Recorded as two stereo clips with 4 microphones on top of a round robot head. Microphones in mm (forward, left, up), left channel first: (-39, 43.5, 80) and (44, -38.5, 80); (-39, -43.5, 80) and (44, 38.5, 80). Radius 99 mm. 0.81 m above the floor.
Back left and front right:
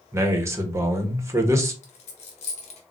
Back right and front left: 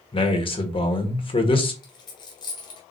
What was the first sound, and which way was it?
A man speaking, 105° right.